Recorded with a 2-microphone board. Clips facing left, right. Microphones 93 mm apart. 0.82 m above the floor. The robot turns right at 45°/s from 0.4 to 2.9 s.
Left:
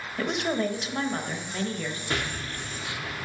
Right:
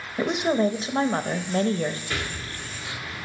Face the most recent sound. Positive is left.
turn(degrees=75)